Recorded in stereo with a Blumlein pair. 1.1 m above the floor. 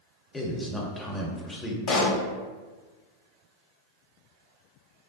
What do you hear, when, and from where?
0.3 s a man speaking: 10° left, 0.7 m
1.9 s a pop: 30° left, 0.8 m